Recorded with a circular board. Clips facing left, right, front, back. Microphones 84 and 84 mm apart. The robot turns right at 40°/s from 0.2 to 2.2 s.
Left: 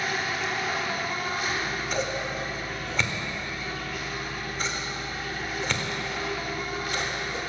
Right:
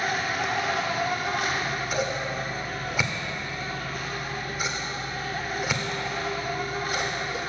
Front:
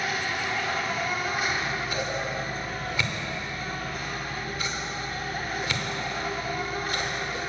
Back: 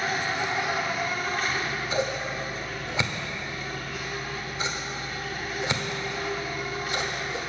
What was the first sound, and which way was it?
An insect, 125° right.